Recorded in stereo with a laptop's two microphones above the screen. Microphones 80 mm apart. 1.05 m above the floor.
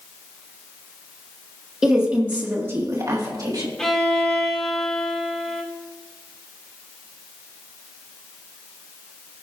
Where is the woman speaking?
10° right (ahead or behind), 1.6 m; by 3.7 s 55° right (ahead or behind), 1.7 m.